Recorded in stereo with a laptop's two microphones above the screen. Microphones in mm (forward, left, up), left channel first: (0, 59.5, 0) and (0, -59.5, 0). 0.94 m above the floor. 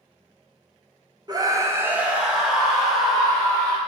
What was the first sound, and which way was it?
A scream, 35° right (ahead or behind).